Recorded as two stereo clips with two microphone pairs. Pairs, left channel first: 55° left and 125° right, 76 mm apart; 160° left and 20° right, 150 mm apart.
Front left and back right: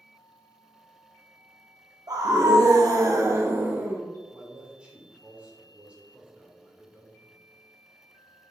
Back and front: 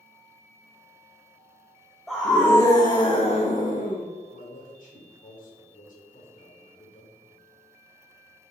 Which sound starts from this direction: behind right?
A scream, at 2.1 s.